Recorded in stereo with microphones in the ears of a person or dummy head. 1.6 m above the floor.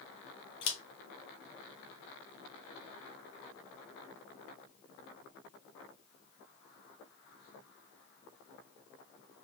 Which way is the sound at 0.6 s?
25° left (ahead or behind).